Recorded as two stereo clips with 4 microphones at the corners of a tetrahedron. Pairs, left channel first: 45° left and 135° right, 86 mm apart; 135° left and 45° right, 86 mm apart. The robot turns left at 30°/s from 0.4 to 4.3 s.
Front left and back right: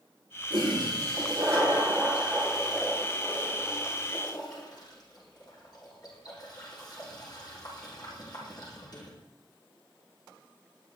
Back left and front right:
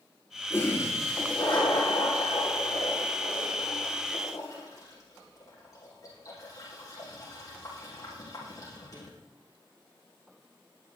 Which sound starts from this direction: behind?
A toilet flushing, at 0.5 s.